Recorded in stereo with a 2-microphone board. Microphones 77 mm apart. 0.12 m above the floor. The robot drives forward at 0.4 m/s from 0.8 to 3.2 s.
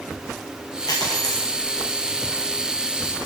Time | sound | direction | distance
0.9 | a dropped coin | 55° left (ahead or behind) | 3 m